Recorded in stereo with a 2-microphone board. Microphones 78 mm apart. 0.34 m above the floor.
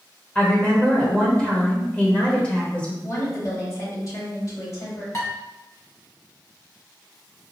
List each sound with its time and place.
0.3 s a woman speaking: 15° left (ahead or behind), 1.0 m
3.0 s a woman speaking: 45° left (ahead or behind), 2.0 m
5.1 s dishes clattering: 40° left (ahead or behind), 1.7 m